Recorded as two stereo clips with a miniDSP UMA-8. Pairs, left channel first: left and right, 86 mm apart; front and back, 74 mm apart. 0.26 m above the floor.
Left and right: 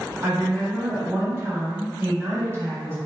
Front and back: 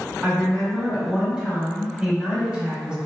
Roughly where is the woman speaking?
Behind right.